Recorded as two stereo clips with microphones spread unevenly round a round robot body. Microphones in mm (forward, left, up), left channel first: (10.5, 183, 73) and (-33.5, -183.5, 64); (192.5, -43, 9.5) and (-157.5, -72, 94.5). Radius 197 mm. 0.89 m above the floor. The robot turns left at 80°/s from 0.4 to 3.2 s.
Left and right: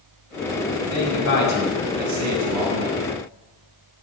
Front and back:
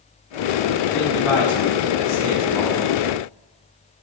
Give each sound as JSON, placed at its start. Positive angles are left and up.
{"t": 0.9, "sound": "a man speaking", "azimuth_deg": 55, "distance_m": 5.5}